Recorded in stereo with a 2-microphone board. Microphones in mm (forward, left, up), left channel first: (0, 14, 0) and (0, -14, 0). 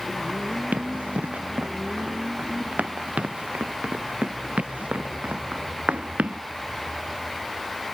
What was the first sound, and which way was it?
Running footsteps, 75° right (ahead or behind).